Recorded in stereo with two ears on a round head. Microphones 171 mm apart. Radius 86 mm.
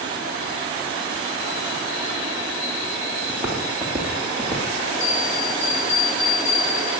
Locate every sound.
3.3 s footsteps: 5° right (ahead or behind), 4.5 m; by 4.9 s 15° left (ahead or behind), 5 m
5.0 s a bell: 70° left (ahead or behind), 7.5 m